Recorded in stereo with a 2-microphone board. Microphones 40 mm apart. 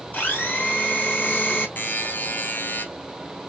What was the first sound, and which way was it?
A blender, 35° left (ahead or behind).